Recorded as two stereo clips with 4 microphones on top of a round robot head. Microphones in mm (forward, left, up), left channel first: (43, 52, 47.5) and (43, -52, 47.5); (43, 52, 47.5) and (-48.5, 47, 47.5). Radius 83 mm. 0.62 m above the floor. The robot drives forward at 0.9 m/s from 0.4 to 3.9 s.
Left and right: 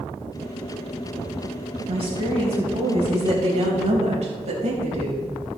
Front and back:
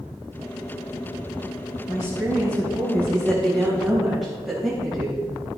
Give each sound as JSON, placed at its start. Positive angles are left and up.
{"t": 1.9, "sound": "a woman speaking", "azimuth_deg": -60, "distance_m": 4.0}